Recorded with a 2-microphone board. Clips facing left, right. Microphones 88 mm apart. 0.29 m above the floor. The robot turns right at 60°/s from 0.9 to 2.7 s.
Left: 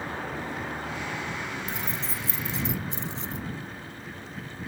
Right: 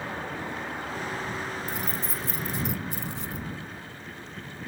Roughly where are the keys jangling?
Left.